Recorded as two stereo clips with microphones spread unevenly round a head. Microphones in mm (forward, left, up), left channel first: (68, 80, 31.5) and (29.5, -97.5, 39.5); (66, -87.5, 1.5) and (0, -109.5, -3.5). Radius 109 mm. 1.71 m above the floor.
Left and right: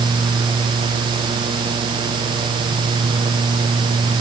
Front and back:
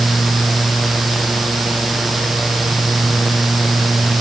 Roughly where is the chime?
No chime in this recording.